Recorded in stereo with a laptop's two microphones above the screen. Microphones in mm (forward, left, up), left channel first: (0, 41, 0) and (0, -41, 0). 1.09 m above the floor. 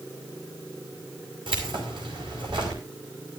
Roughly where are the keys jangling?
Right.